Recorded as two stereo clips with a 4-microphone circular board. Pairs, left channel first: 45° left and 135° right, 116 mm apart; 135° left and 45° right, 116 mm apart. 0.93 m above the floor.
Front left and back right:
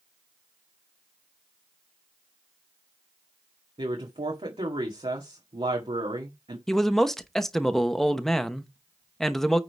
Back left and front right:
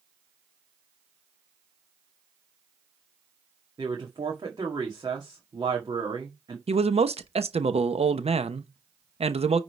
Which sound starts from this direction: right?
A woman speaking, at 3.8 s.